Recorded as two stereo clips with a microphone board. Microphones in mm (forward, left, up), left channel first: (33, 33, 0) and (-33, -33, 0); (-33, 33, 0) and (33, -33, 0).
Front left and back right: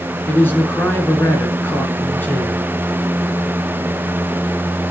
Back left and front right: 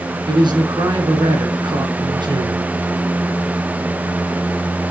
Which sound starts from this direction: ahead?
A man speaking, at 0.3 s.